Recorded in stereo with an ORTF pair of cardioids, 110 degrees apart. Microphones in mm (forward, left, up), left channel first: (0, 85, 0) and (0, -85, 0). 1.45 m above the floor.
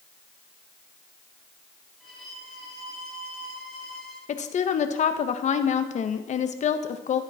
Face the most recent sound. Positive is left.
turn(degrees=45)